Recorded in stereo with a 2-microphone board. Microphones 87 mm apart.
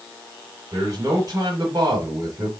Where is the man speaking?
40° right (ahead or behind), 1.5 m.